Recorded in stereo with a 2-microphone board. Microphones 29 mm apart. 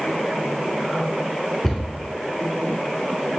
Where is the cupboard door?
15° left (ahead or behind), 0.8 m.